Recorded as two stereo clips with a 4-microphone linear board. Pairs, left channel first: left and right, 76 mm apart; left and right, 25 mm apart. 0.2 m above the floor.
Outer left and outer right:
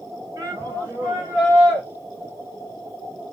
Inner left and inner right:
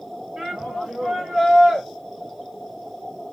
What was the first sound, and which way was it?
A shout, 40° right (ahead or behind).